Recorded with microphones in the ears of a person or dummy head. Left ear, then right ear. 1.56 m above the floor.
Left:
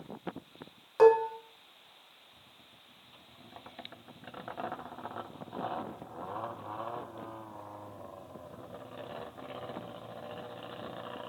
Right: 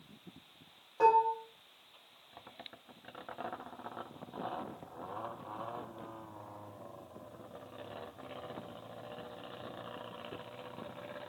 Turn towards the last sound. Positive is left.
turn(degrees=50)  # may be behind; listen again after turning